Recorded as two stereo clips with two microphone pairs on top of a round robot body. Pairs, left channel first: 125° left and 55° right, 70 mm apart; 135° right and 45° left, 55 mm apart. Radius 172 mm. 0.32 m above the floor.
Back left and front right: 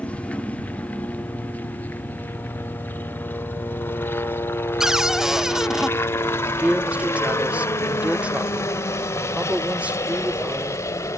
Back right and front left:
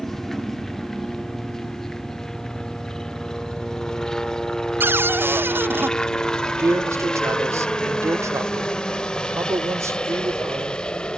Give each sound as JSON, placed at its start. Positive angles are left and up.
{"t": 0.0, "sound": "a helicopter", "azimuth_deg": 150}
{"t": 4.8, "sound": "a cupboard door", "azimuth_deg": 40}
{"t": 6.6, "sound": "a man speaking", "azimuth_deg": 20}